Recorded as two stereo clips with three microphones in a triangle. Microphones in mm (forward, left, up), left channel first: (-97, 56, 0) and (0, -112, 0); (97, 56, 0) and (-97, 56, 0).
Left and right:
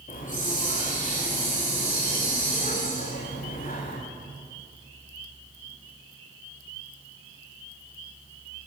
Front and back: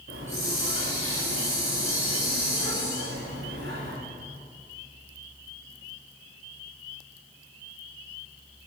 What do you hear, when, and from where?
0.1 s a hiss: 170° left, 6.5 m